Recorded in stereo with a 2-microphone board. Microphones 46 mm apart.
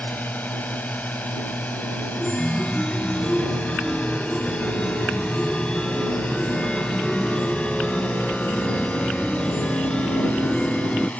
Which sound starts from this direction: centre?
A chime, at 2.2 s.